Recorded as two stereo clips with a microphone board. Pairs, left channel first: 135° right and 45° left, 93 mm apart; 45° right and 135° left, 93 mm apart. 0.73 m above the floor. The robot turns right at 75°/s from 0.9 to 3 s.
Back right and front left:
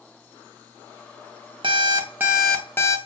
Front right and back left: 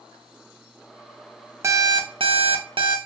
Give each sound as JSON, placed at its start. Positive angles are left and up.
{"t": 1.6, "sound": "an alarm clock", "azimuth_deg": 75, "distance_m": 0.5}